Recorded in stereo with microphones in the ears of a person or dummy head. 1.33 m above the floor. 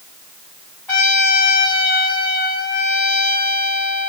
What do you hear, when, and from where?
0.9 s a trumpet: 15° left (ahead or behind), 2.0 m